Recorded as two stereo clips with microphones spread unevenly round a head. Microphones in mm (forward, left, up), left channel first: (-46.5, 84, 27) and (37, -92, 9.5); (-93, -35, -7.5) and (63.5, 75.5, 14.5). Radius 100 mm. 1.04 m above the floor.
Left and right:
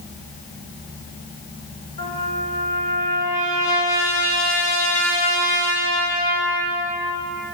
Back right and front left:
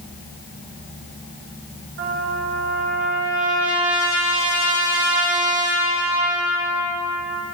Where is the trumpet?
60° left, 2.5 m.